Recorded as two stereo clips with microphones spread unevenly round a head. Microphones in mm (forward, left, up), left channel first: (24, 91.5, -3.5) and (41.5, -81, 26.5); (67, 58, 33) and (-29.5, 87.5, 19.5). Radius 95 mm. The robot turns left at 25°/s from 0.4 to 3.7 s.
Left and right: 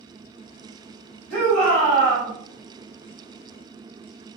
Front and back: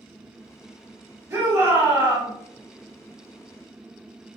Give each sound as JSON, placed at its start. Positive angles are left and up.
{"t": 1.3, "sound": "a shout", "azimuth_deg": -125, "distance_m": 1.4}